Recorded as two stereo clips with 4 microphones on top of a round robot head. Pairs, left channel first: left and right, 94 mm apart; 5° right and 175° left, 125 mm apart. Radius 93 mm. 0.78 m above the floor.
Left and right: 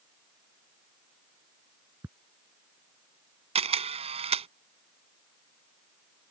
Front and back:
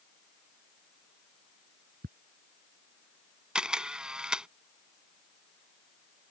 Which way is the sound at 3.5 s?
95° right.